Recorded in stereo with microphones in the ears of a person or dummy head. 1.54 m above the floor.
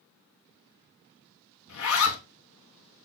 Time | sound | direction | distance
1.7 | a zipper | 65° left (ahead or behind) | 0.8 m